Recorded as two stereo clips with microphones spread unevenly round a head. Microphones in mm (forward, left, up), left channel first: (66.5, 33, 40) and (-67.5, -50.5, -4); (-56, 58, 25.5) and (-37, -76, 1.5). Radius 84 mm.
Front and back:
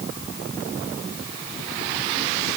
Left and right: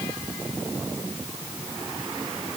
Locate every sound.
Only background noise.